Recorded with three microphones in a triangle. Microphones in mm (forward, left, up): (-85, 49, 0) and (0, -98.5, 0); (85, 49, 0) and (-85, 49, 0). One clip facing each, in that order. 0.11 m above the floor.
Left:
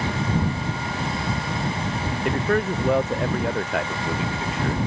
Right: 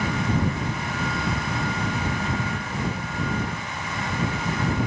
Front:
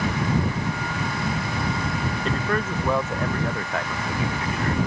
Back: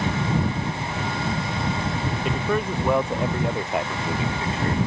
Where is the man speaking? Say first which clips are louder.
Left 7 dB, back 2 dB; 100° left; by 4.8 s 115° left.